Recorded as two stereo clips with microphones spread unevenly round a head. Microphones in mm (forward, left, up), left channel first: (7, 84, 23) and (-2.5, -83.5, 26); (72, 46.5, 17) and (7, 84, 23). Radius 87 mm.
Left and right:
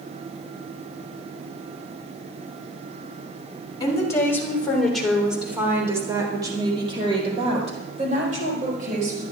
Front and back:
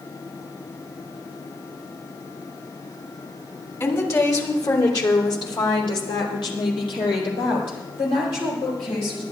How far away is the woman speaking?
About 3.5 m.